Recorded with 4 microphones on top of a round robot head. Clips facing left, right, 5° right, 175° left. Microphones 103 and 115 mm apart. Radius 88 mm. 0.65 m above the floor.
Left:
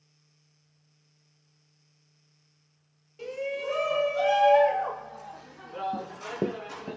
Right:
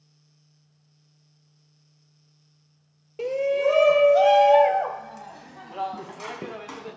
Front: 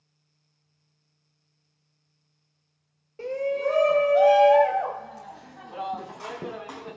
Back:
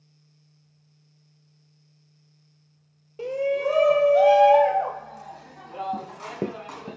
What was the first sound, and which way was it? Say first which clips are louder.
A shout: right 10 dB, back 2 dB; 110° right.